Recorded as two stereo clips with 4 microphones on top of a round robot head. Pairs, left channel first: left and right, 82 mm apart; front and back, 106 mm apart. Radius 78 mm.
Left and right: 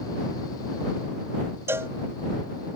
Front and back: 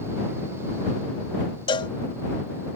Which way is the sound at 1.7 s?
35° right.